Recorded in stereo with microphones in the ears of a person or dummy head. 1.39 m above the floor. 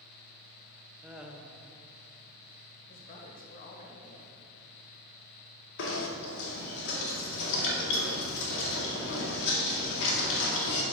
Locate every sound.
1.0 s laughter: 5° right (ahead or behind), 1.0 m
2.9 s a woman speaking: 45° left (ahead or behind), 1.6 m
5.8 s knocking: 70° left (ahead or behind), 2 m